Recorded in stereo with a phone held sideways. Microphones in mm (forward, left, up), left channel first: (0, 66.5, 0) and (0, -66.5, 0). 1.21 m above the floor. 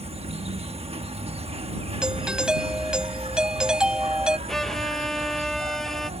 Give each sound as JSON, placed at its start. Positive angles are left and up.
{"t": 0.0, "sound": "an insect", "side_deg": -50}
{"t": 2.0, "sound": "a doorbell", "side_deg": -5}
{"t": 4.5, "sound": "a violin", "side_deg": 5}